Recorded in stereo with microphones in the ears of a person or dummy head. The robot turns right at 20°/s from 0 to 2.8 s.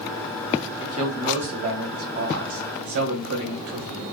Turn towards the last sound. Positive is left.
turn(degrees=-115)